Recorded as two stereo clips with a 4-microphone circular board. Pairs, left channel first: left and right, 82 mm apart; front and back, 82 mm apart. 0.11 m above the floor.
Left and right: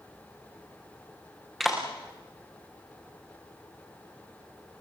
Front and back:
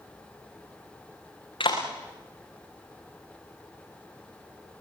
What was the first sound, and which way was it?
A clap, straight ahead.